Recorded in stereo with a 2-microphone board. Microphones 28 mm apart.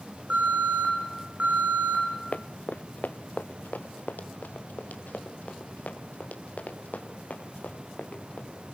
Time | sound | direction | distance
0.3 | an alarm | 65° right (ahead or behind) | 9.5 m
2.3 | running footsteps | 50° left (ahead or behind) | 0.8 m